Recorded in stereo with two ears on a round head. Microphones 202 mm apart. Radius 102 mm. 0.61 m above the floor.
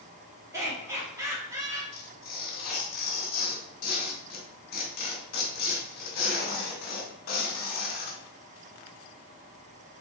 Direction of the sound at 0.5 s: 15° right (ahead or behind).